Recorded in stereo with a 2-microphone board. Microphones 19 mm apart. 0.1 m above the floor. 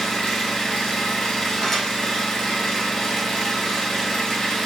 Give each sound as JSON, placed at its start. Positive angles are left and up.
{"t": 0.0, "sound": "an engine running", "side_deg": 55, "distance_m": 1.2}
{"t": 1.6, "sound": "dishes clattering", "side_deg": 20, "distance_m": 1.0}